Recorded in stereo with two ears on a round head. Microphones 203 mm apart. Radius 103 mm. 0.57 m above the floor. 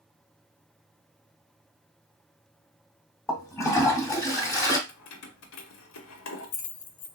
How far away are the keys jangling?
About 0.6 m.